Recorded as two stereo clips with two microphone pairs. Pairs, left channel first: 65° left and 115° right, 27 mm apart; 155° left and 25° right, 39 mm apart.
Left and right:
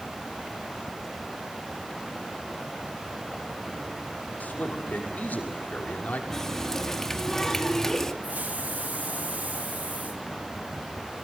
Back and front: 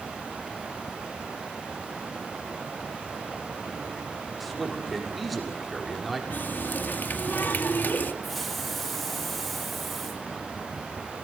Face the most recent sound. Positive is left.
turn(degrees=-115)